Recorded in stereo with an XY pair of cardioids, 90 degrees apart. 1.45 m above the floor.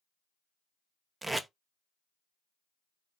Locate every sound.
1.2 s tape being pulled: 15° right, 0.5 m